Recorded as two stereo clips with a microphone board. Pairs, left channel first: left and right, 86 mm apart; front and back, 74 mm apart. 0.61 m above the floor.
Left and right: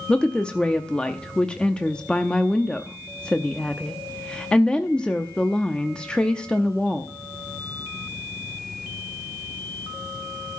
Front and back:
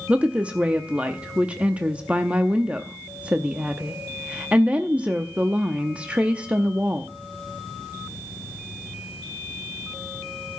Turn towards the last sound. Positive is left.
turn(degrees=150)